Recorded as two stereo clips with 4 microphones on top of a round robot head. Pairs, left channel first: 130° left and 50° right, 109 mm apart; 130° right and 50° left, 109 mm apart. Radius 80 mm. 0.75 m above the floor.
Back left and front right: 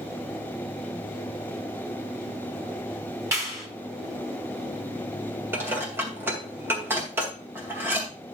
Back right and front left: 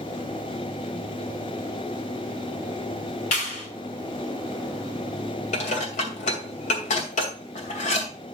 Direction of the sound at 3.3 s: 120° right.